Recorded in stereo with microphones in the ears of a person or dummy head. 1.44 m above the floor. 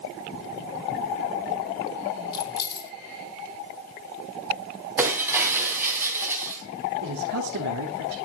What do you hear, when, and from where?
2.3 s keys jangling: 20° left (ahead or behind), 0.9 m
5.0 s breaking glass: 10° right (ahead or behind), 2.5 m
7.0 s a man speaking: 75° right (ahead or behind), 2.5 m